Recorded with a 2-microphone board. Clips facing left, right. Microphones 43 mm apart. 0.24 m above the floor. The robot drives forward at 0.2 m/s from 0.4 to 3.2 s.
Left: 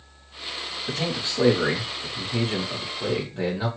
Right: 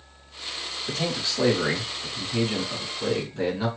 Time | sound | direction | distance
0.9 | a man speaking | 15° left (ahead or behind) | 1.0 m